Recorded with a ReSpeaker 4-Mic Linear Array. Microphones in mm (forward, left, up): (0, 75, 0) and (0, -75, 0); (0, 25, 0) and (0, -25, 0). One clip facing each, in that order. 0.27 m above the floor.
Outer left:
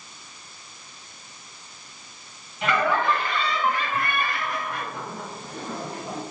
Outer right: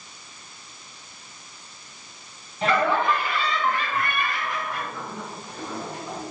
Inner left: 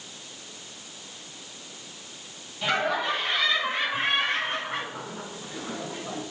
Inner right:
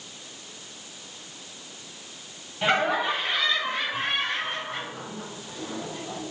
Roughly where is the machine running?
No machine running in this recording.